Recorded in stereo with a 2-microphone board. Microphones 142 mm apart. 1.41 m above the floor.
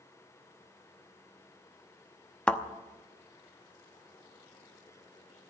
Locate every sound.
2.5 s a thud: 10° left (ahead or behind), 0.9 m